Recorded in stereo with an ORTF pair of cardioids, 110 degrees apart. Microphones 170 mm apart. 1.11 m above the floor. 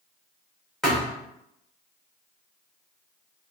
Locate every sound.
0.8 s a thud: straight ahead, 2.0 m